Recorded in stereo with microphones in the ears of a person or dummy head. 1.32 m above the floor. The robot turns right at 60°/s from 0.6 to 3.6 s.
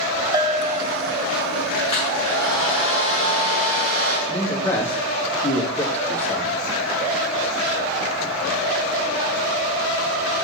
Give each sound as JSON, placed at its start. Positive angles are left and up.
{"t": 0.3, "sound": "a bell", "azimuth_deg": -155, "distance_m": 0.6}
{"t": 1.9, "sound": "a hair dryer", "azimuth_deg": -155, "distance_m": 5.5}
{"t": 4.3, "sound": "a man speaking", "side_deg": 15, "distance_m": 1.9}